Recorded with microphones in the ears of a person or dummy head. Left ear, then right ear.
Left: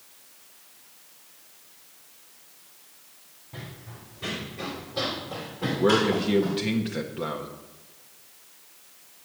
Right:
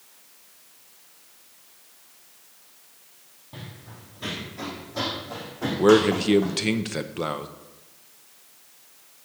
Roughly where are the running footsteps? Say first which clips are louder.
Even; right.